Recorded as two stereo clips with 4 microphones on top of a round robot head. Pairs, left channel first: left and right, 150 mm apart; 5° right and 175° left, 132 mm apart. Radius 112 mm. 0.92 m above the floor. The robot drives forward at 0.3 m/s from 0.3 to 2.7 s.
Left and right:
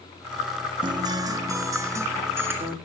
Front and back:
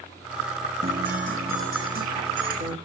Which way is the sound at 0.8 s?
145° right.